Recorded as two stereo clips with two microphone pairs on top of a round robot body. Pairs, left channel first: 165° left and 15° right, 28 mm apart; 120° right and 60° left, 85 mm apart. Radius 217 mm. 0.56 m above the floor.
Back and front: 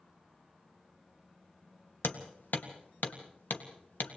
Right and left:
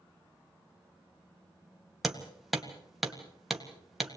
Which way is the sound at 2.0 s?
150° left.